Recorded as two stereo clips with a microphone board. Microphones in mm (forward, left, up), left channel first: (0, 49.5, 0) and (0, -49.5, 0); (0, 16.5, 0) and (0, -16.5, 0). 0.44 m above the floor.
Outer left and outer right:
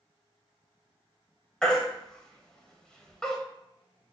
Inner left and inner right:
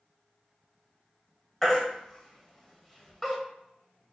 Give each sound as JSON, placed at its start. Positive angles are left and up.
{"t": 1.6, "sound": "a baby crying", "side_deg": 5, "distance_m": 0.7}